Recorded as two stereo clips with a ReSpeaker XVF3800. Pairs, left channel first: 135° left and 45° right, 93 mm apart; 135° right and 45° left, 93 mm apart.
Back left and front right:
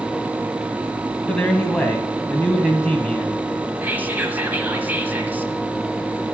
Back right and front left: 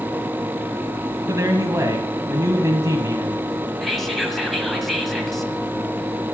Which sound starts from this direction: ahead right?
Whispering, at 3.8 s.